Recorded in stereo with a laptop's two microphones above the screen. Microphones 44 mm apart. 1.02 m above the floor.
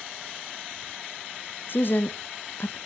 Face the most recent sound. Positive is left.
turn(degrees=50)  # may be behind; listen again after turning